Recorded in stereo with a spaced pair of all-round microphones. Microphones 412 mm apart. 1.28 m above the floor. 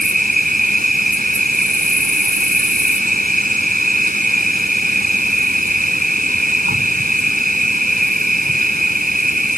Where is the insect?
20° right (ahead or behind).